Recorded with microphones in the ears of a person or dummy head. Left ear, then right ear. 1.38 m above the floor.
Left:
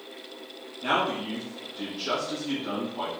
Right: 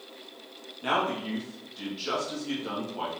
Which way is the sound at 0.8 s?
10° right (ahead or behind).